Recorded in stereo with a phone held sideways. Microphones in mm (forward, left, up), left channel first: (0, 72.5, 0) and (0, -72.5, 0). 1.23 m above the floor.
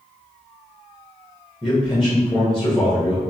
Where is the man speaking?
5° left (ahead or behind), 0.9 m.